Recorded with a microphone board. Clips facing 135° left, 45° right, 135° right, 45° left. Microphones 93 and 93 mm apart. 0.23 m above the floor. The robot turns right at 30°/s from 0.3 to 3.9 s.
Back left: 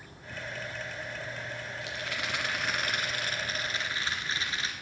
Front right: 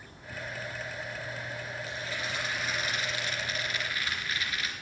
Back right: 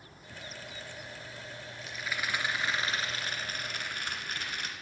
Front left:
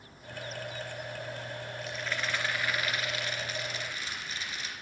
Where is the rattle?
135° left, 2.5 m; by 4.7 s 165° right, 2.5 m.